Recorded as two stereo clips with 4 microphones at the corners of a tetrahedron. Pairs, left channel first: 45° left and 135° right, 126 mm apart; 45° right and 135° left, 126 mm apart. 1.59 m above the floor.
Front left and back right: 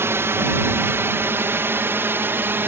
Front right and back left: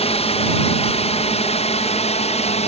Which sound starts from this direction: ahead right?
A drone, at 0.0 s.